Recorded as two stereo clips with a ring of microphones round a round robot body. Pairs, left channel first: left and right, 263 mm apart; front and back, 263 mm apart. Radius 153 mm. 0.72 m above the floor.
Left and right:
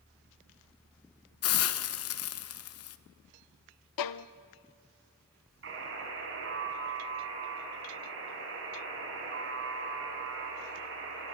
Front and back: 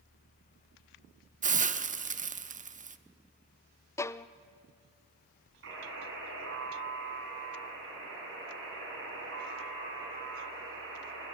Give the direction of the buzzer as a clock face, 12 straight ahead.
4 o'clock.